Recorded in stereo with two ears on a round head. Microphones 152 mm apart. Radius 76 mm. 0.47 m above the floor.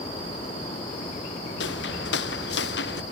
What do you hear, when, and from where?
1.6 s footsteps: 75° left (ahead or behind); by 3.0 s 70° left (ahead or behind)